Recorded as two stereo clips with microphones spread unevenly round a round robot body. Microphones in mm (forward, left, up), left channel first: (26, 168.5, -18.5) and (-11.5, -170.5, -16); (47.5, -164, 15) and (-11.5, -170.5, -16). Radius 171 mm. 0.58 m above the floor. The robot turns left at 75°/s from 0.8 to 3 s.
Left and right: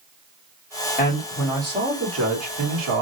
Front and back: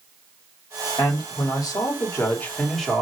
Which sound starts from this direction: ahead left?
A man speaking, at 1.0 s.